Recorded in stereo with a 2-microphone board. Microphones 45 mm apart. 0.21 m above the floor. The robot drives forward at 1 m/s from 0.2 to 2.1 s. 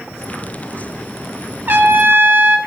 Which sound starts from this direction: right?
A trumpet, at 1.7 s.